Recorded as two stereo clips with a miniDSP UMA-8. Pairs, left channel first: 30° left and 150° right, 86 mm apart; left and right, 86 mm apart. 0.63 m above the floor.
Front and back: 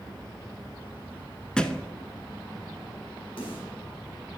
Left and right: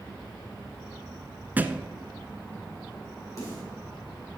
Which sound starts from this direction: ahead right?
A thud, at 1.6 s.